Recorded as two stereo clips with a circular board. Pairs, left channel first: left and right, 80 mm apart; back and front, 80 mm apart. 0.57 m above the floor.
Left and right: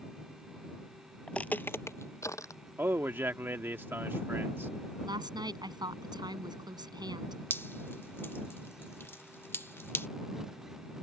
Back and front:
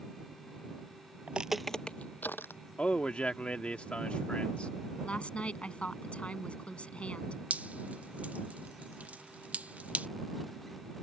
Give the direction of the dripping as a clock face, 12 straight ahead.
10 o'clock.